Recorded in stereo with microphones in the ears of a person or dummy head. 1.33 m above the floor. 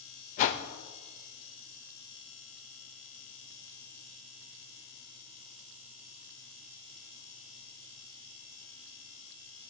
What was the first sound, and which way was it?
A whoosh, 50° left (ahead or behind).